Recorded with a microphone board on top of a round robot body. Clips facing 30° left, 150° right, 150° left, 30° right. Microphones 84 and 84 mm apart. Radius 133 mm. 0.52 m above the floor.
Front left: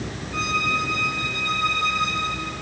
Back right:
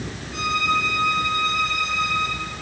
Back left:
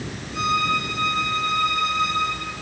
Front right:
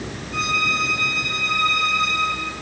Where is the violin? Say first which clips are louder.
Back right 2 dB, back left 2 dB; 5° right, 7 m.